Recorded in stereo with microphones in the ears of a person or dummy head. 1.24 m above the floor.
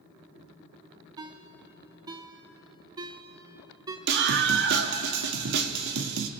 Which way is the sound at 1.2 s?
20° right (ahead or behind).